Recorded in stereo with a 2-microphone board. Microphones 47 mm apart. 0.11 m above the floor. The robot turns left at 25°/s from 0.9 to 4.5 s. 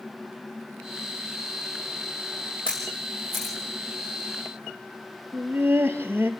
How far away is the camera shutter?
About 7.5 m.